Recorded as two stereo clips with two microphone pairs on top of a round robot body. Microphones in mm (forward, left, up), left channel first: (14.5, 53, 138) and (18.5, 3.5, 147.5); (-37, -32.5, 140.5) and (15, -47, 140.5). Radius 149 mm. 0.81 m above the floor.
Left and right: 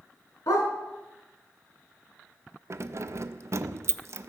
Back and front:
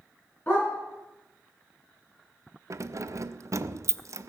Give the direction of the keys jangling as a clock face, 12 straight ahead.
1 o'clock.